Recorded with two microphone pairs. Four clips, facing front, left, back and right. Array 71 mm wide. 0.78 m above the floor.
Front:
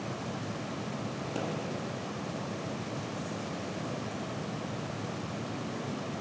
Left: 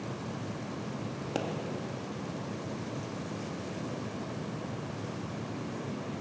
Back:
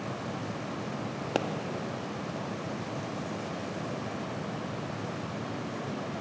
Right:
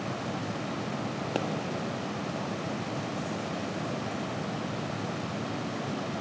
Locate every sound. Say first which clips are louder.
1.4 s a pop: right 2 dB, back 6 dB; 170° right, 0.7 m